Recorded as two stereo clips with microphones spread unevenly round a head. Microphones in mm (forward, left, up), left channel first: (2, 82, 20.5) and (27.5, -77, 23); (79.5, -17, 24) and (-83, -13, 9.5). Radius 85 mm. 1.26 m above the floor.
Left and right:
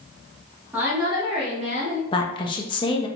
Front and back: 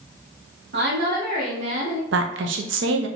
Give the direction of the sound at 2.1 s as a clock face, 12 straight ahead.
7 o'clock.